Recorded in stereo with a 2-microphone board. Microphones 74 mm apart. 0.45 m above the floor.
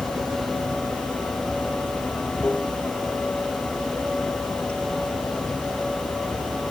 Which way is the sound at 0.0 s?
20° left (ahead or behind).